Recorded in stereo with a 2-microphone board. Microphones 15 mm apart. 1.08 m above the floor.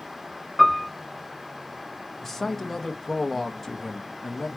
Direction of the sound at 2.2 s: 25° left (ahead or behind).